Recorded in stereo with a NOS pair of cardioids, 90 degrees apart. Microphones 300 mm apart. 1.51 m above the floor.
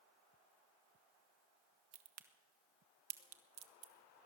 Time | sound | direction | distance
1.9 | a crack | 60° right | 1.6 m